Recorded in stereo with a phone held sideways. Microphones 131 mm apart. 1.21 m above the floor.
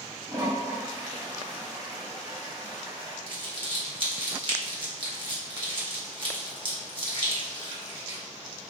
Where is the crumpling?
40° right (ahead or behind), 1.2 m.